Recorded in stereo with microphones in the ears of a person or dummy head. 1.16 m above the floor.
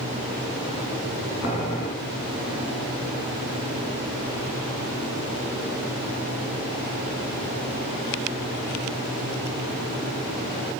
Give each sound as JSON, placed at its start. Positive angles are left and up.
{"t": 1.4, "sound": "boiling", "side_deg": 65, "distance_m": 6.0}